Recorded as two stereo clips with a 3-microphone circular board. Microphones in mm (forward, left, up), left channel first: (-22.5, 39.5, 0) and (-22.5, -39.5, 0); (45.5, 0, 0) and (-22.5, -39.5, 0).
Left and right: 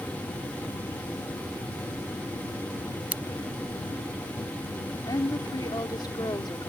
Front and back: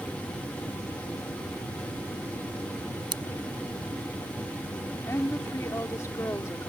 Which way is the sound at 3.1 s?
160° right.